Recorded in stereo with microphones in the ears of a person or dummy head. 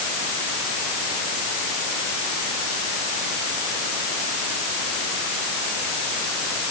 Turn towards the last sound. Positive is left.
No sound to turn to.